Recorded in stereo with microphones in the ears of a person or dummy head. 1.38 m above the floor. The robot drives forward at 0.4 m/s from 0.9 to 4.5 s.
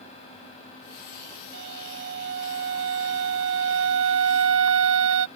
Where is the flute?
60° right (ahead or behind); by 5.3 s 75° right (ahead or behind).